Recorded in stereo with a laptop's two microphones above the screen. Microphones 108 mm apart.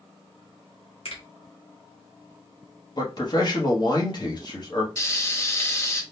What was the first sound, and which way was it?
A finger snap, 65° left (ahead or behind).